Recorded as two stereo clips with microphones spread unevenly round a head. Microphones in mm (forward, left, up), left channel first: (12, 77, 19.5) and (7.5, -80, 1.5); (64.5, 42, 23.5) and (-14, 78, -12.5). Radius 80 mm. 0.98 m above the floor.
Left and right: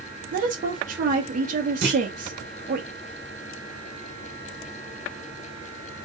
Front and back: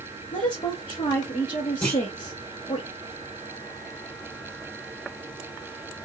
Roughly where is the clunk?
Right.